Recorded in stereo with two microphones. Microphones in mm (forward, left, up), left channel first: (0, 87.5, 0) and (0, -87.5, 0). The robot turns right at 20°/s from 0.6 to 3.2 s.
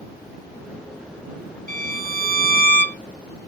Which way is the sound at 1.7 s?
50° right (ahead or behind).